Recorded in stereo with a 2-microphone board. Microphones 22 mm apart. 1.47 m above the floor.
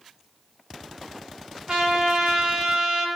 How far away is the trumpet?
About 3 m.